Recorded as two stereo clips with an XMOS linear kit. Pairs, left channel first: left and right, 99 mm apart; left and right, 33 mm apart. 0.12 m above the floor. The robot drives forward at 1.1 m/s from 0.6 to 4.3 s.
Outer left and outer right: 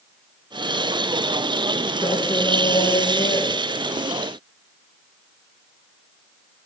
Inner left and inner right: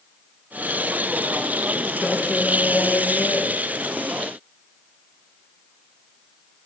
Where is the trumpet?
No trumpet in this recording.